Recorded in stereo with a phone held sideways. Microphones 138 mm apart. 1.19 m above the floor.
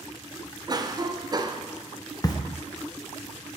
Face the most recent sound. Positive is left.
turn(degrees=30)  # may be behind; listen again after turning